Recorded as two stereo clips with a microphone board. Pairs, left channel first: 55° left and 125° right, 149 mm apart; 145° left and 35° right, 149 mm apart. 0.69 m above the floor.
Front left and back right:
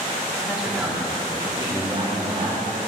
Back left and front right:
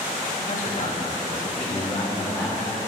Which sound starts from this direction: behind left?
A man speaking, at 0.4 s.